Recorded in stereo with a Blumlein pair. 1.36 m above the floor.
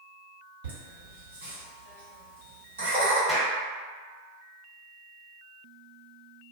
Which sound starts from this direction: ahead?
A clap, at 3.3 s.